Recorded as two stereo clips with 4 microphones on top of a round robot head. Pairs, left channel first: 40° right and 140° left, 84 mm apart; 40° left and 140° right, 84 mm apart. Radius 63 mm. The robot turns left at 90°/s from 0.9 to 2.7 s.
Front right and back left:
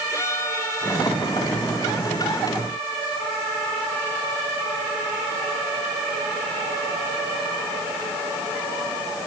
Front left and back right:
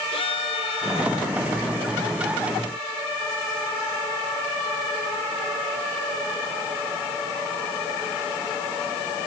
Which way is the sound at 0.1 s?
20° left.